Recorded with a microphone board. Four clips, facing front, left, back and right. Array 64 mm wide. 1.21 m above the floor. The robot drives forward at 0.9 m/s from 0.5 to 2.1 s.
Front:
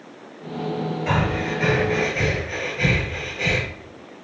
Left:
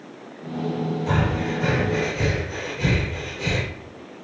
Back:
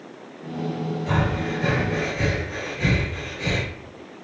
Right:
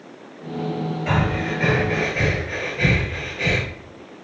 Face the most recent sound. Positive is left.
turn(degrees=-65)